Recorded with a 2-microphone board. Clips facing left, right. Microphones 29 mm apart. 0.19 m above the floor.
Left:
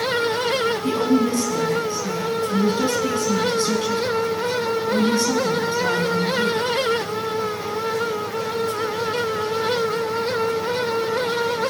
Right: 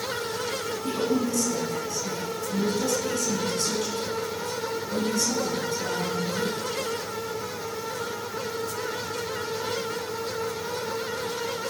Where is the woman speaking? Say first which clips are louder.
Left 4 dB; 45° left (ahead or behind), 1.9 m.